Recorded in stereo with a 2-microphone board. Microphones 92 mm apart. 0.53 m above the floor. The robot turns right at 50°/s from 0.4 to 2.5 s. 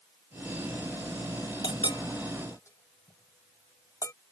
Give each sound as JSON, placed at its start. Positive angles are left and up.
{"t": 1.6, "sound": "a clink", "side_deg": 70}